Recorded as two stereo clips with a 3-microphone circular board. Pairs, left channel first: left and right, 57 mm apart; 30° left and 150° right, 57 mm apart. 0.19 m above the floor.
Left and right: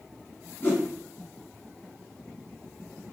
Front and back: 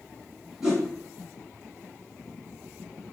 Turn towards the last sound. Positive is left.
turn(degrees=135)